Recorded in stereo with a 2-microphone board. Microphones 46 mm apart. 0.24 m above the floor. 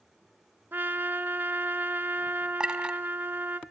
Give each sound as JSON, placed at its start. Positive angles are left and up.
{"t": 0.7, "sound": "a trumpet", "side_deg": -50, "distance_m": 0.9}
{"t": 2.6, "sound": "a clink", "side_deg": -20, "distance_m": 1.1}